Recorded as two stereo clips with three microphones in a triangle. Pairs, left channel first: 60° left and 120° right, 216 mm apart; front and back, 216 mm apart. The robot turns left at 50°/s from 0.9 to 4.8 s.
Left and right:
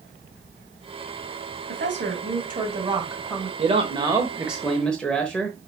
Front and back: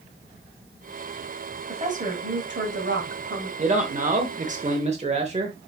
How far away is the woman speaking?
About 2.5 m.